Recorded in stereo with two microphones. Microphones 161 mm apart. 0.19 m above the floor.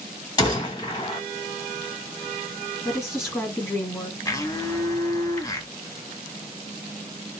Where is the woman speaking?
15° left (ahead or behind), 2 m.